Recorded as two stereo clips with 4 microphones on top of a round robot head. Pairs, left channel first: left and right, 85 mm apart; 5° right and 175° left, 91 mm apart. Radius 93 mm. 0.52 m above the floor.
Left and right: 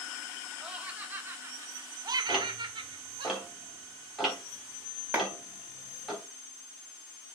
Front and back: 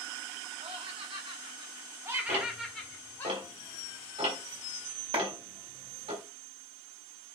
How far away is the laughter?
About 2.5 m.